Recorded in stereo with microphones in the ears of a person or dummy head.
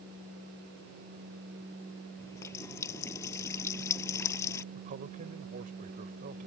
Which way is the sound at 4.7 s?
45° right (ahead or behind).